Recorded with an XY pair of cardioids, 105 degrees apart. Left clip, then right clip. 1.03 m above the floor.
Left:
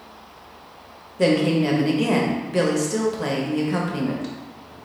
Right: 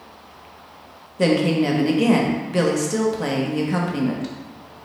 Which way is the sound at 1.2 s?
10° right.